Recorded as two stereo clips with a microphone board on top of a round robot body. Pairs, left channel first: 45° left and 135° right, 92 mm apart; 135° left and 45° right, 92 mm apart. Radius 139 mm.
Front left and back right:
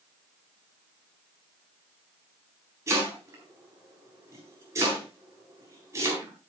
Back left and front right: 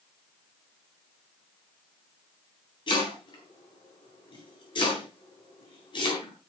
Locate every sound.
2.9 s chopping: 165° left, 9.5 m